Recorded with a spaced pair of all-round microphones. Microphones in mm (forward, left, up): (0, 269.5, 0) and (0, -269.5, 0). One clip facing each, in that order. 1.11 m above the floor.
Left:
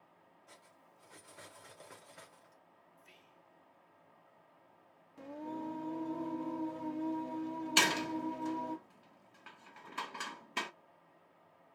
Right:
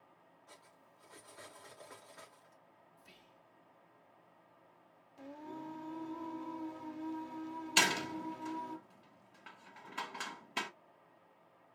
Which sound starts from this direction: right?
Whispering, at 3.0 s.